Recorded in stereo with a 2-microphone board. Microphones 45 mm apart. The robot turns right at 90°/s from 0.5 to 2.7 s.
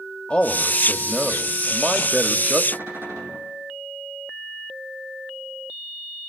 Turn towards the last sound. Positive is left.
turn(degrees=-60)  # may be behind; listen again after turning